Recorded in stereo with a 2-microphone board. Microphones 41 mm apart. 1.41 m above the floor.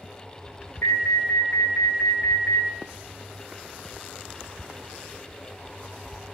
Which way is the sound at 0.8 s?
80° left.